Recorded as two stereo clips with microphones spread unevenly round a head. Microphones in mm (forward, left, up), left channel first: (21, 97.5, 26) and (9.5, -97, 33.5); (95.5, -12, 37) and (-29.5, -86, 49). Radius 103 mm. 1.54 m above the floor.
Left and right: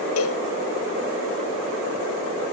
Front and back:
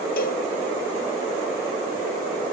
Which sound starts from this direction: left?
A cowbell, at 0.2 s.